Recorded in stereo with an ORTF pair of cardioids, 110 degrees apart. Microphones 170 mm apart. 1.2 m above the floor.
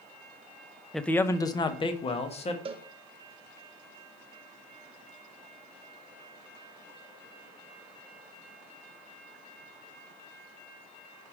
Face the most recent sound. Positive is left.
turn(degrees=-30)